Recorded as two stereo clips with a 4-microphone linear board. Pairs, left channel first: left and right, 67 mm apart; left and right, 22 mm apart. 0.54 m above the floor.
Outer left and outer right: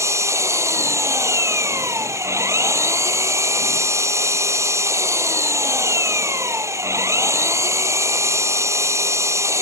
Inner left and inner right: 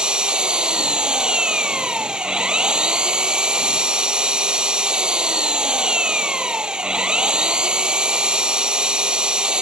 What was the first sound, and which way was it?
An engine running, 45° right (ahead or behind).